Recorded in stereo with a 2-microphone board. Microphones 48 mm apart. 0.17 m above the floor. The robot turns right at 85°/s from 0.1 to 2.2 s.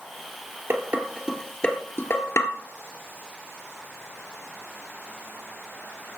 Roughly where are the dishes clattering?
Right.